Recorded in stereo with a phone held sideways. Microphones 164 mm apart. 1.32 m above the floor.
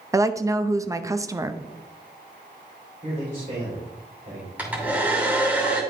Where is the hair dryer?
10° right (ahead or behind), 2.5 m.